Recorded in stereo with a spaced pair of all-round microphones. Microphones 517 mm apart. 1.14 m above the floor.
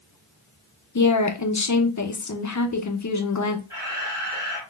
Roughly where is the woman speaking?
Left.